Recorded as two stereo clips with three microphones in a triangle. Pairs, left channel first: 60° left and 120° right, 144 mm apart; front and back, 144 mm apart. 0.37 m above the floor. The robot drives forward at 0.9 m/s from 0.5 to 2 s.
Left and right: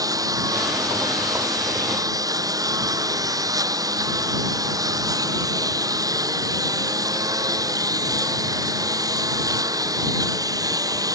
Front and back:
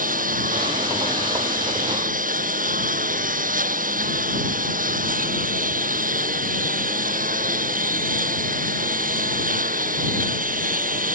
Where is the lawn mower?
175° left.